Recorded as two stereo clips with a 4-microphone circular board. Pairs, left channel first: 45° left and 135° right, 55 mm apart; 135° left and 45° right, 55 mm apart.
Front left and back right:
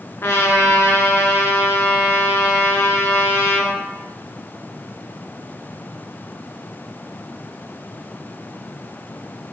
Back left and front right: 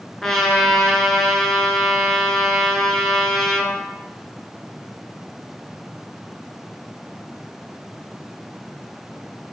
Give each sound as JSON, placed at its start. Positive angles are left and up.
{"t": 0.2, "sound": "a trumpet", "azimuth_deg": 55, "distance_m": 0.6}